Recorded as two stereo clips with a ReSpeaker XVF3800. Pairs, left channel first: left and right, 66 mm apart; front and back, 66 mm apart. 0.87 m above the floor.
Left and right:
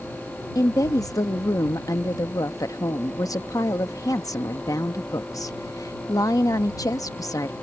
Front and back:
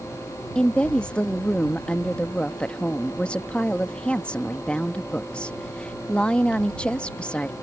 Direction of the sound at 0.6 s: 70° left.